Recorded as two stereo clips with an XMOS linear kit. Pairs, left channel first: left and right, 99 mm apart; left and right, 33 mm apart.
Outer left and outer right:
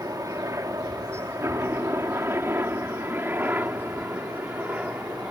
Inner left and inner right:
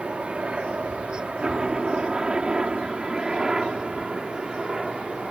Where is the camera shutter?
I don't hear a camera shutter.